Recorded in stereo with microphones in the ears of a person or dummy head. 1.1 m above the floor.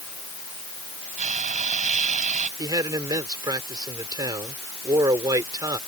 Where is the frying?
45° right (ahead or behind).